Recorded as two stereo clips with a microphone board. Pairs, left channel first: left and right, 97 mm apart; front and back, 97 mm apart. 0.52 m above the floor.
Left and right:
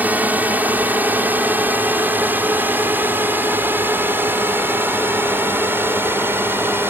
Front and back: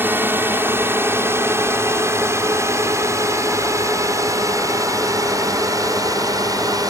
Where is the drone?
140° right; by 6.9 s 150° right.